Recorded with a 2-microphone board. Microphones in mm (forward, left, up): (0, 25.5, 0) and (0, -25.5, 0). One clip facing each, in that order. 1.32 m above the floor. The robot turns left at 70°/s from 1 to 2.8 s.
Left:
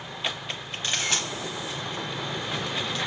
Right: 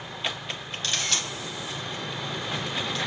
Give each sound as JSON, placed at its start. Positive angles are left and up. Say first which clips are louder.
{"t": 0.8, "sound": "a camera shutter", "louder": "left 2 dB", "side_deg": 20, "distance_m": 1.2}